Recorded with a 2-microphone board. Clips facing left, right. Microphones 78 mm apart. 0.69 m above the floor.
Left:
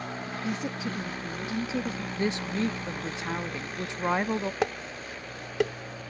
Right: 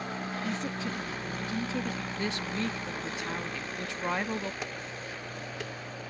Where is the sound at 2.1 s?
20° left (ahead or behind).